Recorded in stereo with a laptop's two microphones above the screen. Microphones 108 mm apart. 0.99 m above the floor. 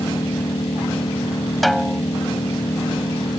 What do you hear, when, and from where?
0.0 s an engine running: 45° left (ahead or behind)
1.6 s a snare drum: centre (ahead or behind)